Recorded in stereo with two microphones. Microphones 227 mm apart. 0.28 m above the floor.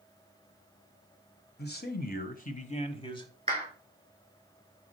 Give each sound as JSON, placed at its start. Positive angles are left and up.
{"t": 1.6, "sound": "a man speaking", "side_deg": 45, "distance_m": 1.3}
{"t": 3.5, "sound": "a clap", "side_deg": -25, "distance_m": 4.0}